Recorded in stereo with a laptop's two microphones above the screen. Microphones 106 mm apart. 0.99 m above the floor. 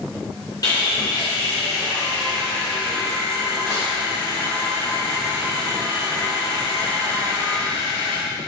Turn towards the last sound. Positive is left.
turn(degrees=40)  # may be behind; listen again after turning